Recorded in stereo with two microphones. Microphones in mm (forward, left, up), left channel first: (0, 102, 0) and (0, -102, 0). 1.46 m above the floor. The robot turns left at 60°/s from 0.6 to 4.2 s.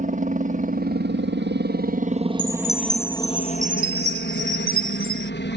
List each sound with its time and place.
0.0 s a helicopter: 45° right; by 5.6 s 100° left
2.4 s a chime: 35° left; by 5.3 s 75° right